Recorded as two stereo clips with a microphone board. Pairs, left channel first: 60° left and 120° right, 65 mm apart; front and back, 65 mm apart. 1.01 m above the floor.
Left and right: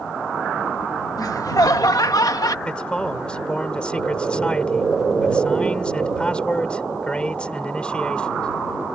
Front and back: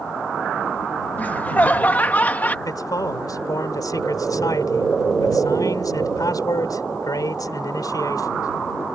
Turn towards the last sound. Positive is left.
turn(degrees=-15)